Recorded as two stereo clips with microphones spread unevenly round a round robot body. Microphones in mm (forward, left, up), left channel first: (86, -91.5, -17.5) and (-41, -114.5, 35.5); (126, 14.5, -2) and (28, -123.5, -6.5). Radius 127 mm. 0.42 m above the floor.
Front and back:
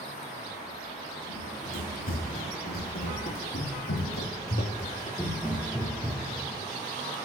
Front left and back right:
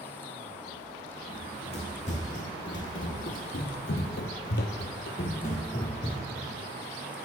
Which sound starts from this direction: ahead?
Running footsteps, at 1.3 s.